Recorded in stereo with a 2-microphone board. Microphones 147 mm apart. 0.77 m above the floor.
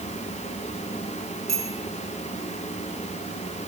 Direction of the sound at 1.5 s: 50° right (ahead or behind).